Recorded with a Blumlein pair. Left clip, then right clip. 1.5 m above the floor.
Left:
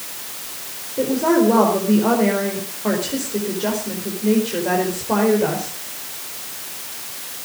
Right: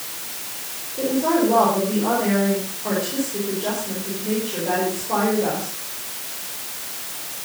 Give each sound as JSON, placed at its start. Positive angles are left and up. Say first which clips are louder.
{"t": 1.0, "sound": "a woman speaking", "louder": "left 3 dB", "azimuth_deg": 70, "distance_m": 4.5}